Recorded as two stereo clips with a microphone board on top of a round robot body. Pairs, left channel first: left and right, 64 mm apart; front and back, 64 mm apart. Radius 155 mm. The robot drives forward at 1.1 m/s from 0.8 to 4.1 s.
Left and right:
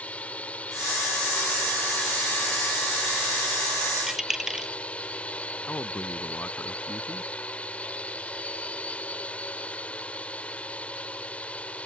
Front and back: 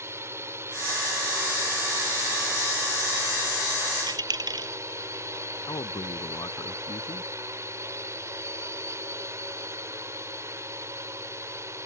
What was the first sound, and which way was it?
A drone, 150° left.